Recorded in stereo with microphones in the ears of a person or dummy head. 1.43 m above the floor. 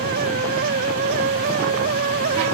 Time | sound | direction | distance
0.0 | a fan | 45° right (ahead or behind) | ?